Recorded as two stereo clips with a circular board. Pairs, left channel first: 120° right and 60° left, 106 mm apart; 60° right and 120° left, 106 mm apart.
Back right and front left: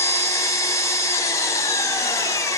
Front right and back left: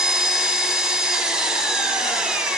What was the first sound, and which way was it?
An engine running, 160° right.